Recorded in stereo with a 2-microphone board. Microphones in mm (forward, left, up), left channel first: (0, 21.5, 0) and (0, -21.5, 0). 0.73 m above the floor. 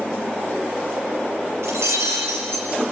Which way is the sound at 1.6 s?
85° right.